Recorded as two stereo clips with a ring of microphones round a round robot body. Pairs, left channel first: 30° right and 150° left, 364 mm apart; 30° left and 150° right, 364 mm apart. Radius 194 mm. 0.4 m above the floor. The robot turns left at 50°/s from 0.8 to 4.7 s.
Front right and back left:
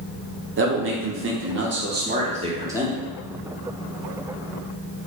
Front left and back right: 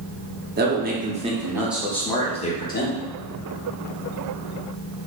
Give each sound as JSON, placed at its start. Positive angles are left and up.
{"t": 0.6, "sound": "a man speaking", "azimuth_deg": 170, "distance_m": 0.9}